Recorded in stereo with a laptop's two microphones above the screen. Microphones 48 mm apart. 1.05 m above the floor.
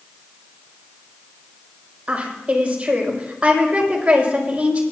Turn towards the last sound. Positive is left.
turn(degrees=-25)  # may be behind; listen again after turning